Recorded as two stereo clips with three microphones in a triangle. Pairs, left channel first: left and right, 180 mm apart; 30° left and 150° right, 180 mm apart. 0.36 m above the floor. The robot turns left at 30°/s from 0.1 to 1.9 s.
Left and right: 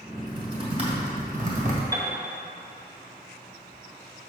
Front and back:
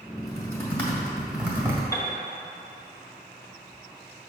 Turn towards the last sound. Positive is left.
turn(degrees=-30)